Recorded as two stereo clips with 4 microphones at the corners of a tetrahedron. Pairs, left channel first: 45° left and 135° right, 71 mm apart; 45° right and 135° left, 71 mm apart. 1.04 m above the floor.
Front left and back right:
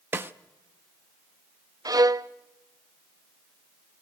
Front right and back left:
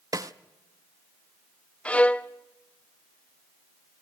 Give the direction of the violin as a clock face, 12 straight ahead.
4 o'clock.